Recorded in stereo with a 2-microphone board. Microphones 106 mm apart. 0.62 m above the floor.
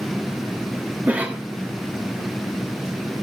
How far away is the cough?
About 0.9 m.